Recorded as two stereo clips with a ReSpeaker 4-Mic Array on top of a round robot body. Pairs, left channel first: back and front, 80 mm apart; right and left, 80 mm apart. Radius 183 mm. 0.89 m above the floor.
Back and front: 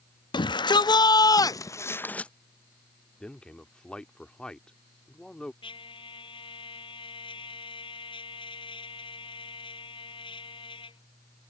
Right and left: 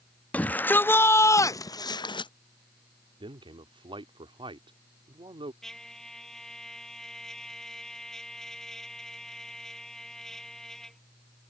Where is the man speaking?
100° left.